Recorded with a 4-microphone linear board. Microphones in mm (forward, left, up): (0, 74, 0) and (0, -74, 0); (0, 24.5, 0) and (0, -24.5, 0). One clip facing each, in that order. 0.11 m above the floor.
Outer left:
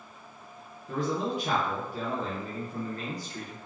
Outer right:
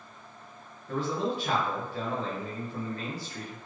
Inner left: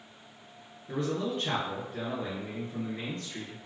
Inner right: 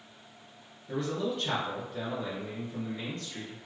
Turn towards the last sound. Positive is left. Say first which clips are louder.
# even, inner left 1 dB
turn(degrees=15)  # may be behind; listen again after turning